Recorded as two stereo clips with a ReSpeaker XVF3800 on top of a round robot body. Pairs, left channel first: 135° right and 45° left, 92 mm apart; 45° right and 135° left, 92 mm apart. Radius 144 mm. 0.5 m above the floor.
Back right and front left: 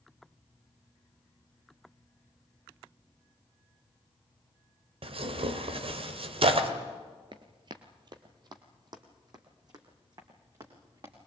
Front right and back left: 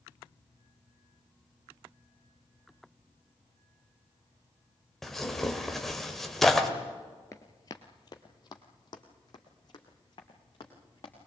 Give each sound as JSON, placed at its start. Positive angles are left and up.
{"t": 5.0, "sound": "tearing paper", "azimuth_deg": 40, "distance_m": 1.9}
{"t": 7.3, "sound": "running footsteps", "azimuth_deg": 10, "distance_m": 0.5}